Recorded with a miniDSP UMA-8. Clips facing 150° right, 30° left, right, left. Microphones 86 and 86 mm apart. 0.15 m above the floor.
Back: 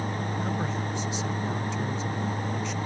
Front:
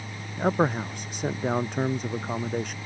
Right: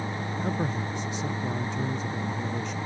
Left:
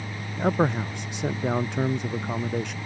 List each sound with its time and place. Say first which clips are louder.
0.4 s a man speaking: front 11 dB, left 8 dB; 65° left